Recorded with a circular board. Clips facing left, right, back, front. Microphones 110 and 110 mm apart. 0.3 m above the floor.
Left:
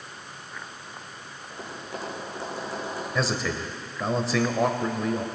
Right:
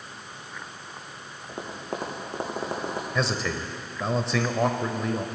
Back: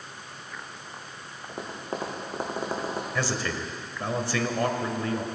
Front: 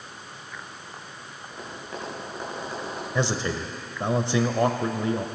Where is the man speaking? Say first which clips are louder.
Left 1 dB, front 6 dB; 5° left, 0.9 m.